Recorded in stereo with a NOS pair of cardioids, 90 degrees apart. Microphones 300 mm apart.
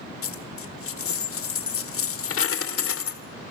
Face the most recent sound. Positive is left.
turn(degrees=55)